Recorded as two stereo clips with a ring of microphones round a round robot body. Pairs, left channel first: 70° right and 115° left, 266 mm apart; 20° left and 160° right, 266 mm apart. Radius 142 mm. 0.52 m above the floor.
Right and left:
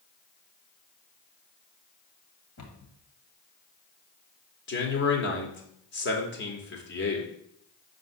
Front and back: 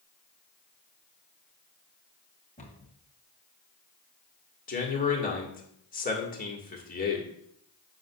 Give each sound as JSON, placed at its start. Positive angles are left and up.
{"t": 2.6, "sound": "a cupboard door", "azimuth_deg": -45, "distance_m": 1.7}
{"t": 4.7, "sound": "a man speaking", "azimuth_deg": -30, "distance_m": 2.0}